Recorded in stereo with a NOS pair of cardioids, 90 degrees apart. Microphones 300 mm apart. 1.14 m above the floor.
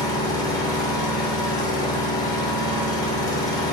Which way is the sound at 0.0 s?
10° left.